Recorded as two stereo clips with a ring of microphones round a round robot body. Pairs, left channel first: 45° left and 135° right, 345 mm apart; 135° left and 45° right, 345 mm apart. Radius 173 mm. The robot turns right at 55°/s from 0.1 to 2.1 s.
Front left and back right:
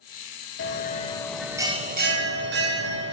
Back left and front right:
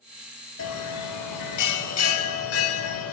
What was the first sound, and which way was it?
A bell, 90° left.